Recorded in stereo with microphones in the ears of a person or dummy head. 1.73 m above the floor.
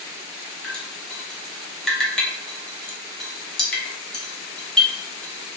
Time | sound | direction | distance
0.6 | dripping | 5° left (ahead or behind) | 0.5 m